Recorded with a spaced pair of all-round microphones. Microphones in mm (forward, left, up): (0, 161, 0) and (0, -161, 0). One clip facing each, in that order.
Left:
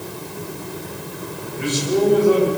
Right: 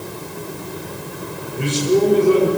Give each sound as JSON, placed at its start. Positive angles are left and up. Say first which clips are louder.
{"t": 1.6, "sound": "a man speaking", "louder": "right 3 dB", "side_deg": -40, "distance_m": 7.5}